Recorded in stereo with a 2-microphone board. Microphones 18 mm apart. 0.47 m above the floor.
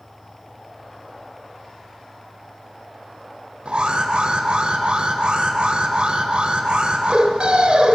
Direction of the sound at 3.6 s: 65° right (ahead or behind).